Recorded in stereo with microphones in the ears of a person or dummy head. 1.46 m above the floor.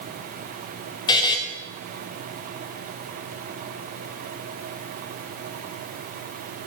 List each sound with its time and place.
1.1 s a buzzer: 25° left (ahead or behind), 0.9 m